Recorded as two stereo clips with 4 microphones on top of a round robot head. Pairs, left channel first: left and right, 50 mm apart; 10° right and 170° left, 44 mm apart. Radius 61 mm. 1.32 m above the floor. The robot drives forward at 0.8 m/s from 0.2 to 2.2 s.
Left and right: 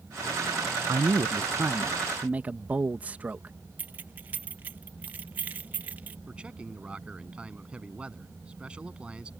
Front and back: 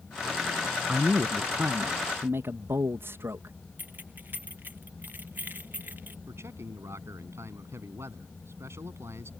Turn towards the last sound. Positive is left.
turn(degrees=-160)